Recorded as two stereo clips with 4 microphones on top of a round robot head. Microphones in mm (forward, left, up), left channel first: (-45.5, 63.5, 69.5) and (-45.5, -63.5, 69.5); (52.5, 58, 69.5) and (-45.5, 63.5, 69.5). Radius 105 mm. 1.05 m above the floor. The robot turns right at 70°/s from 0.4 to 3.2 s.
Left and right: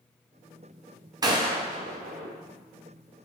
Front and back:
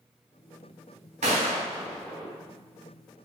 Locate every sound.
1.2 s a gunshot: 145° right, 1.0 m; by 2.4 s 65° right, 1.0 m